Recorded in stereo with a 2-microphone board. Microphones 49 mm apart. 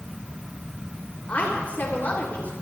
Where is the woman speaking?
35° left (ahead or behind), 3 m.